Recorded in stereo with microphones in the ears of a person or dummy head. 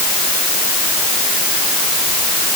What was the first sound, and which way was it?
Only background noise.